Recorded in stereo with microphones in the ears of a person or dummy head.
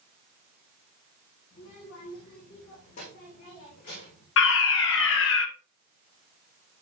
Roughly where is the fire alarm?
Left.